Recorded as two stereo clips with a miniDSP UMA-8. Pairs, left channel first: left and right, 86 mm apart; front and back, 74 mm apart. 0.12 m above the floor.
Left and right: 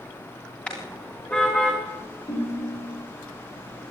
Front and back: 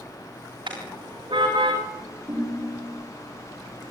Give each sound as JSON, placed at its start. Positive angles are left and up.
{"t": 0.7, "sound": "a car horn", "azimuth_deg": 170, "distance_m": 7.0}
{"t": 2.3, "sound": "a ringtone", "azimuth_deg": 130, "distance_m": 7.0}